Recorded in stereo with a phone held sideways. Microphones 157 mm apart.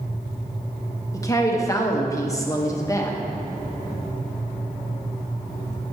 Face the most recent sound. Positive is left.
turn(degrees=20)  # may be behind; listen again after turning